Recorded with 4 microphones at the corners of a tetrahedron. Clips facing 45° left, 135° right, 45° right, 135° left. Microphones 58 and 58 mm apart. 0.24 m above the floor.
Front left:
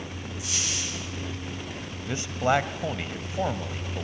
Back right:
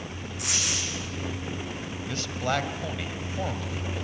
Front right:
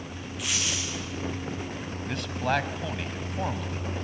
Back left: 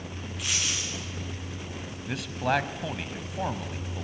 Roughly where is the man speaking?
Ahead left.